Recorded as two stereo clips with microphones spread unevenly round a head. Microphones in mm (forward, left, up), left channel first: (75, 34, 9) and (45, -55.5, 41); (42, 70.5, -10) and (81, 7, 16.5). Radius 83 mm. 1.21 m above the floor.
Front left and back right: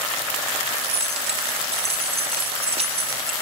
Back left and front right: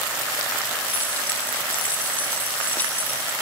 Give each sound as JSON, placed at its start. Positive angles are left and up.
{"t": 0.8, "sound": "keys jangling", "azimuth_deg": -155, "distance_m": 1.2}